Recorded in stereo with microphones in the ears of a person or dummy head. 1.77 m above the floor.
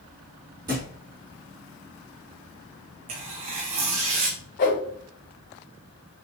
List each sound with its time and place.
0.7 s a thud: 20° right (ahead or behind), 4 m
3.1 s tearing paper: 30° right (ahead or behind), 1.8 m
4.6 s a whoosh: 50° left (ahead or behind), 2.5 m